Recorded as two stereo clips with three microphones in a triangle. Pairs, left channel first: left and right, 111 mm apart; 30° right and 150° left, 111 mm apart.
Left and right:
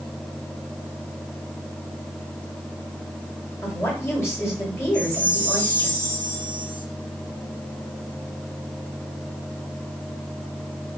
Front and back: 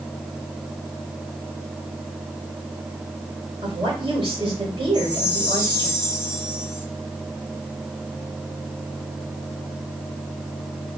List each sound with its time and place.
3.6 s a woman speaking: 140° left, 1.8 m
4.9 s a chime: 165° right, 1.2 m